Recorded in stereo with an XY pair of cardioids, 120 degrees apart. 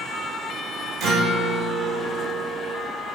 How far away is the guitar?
About 2.5 m.